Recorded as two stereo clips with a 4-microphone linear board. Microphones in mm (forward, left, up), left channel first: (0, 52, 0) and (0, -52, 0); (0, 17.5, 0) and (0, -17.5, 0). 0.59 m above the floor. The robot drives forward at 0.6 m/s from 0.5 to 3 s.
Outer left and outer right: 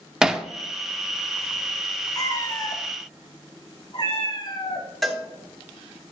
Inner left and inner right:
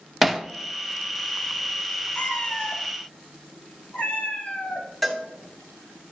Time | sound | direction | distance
0.2 | hammering | 5° right (ahead or behind) | 0.6 m
2.1 | a cat meowing | 35° left (ahead or behind) | 1.9 m
5.0 | a cowbell | centre (ahead or behind) | 1.3 m